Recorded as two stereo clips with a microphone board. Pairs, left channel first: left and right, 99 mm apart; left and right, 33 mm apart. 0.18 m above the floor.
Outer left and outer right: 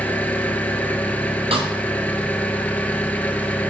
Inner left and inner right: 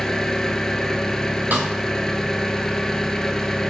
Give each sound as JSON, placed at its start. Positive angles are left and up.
{"t": 0.0, "sound": "an engine running", "side_deg": 15, "distance_m": 0.7}
{"t": 1.5, "sound": "a snare drum", "side_deg": -70, "distance_m": 1.5}